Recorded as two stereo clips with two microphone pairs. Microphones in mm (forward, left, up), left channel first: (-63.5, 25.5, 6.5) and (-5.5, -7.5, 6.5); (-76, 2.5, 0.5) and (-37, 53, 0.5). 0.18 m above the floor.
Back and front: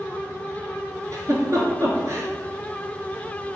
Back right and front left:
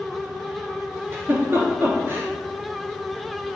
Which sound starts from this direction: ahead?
A giggle, at 1.1 s.